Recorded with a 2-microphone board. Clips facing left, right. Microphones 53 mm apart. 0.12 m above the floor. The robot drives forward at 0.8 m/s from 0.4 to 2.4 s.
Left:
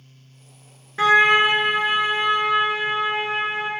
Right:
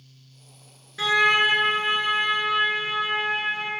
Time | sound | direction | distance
1.0 | a trumpet | 40° left (ahead or behind) | 0.5 m